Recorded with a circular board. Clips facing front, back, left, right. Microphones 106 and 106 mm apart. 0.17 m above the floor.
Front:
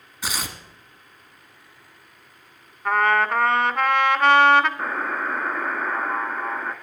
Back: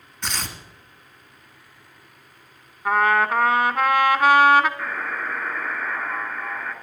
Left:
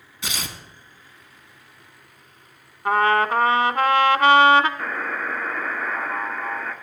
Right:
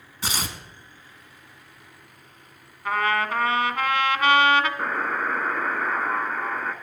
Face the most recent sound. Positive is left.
turn(degrees=-45)